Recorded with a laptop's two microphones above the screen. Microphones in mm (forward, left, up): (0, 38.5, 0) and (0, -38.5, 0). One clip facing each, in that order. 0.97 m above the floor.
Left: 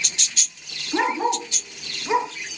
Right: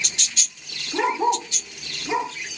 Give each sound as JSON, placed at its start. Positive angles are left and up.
{"t": 0.9, "sound": "a dog barking", "side_deg": 50, "distance_m": 6.0}